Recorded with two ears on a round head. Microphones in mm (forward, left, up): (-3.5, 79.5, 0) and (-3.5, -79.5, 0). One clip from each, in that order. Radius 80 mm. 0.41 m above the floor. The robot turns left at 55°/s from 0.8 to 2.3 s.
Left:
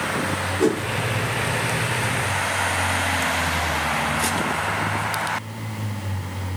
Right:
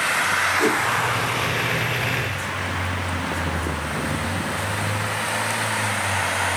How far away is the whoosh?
About 4 m.